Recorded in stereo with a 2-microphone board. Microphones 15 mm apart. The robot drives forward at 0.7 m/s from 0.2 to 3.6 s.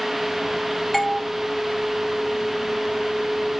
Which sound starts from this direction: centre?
A doorbell, at 0.9 s.